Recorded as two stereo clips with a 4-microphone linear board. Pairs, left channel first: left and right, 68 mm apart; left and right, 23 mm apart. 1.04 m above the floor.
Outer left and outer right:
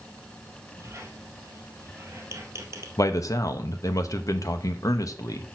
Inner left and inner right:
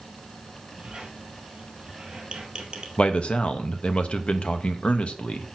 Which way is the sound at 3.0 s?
55° left (ahead or behind).